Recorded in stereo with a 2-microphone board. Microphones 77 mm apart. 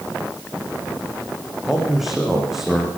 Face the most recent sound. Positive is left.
turn(degrees=-5)  # may be behind; listen again after turning